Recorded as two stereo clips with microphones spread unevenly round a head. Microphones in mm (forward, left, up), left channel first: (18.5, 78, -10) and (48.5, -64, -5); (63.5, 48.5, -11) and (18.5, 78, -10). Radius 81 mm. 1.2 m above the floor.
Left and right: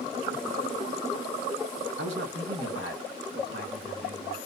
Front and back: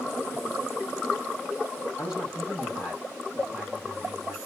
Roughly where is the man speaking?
Right.